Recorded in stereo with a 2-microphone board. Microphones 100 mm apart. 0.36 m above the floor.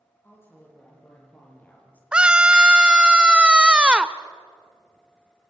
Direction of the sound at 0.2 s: 20° left (ahead or behind).